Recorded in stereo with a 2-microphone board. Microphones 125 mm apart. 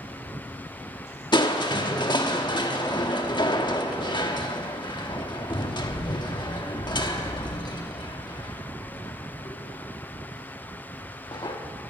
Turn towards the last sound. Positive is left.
turn(degrees=35)  # may be behind; listen again after turning